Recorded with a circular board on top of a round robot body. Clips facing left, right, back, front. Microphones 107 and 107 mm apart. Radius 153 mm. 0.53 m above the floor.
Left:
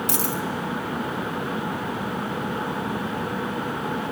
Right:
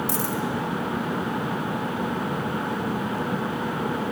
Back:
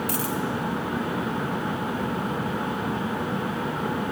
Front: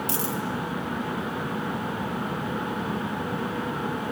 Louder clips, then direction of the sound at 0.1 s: Even, back 2 dB; 65° left.